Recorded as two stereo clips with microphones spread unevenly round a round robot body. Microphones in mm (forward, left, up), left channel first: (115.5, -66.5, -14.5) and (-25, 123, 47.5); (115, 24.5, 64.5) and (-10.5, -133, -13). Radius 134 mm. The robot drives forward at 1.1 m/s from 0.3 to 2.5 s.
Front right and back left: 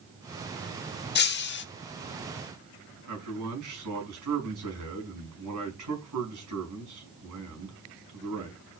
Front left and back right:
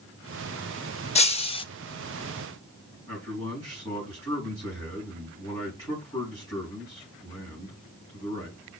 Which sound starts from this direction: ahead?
Breaking glass, at 1.1 s.